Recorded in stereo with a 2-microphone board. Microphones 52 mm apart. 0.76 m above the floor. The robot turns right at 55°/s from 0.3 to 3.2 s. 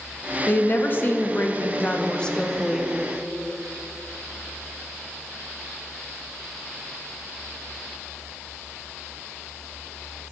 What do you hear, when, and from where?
0.5 s a woman speaking: 55° left, 0.6 m; by 2.9 s 170° right, 0.6 m